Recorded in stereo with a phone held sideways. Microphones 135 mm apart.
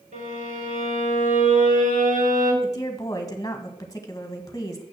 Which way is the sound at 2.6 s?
25° left (ahead or behind).